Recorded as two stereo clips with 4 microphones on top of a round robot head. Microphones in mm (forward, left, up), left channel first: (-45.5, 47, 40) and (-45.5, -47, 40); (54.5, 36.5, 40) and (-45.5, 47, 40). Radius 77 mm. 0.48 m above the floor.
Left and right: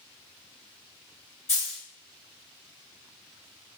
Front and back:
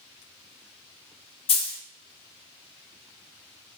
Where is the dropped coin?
20° left, 0.6 m.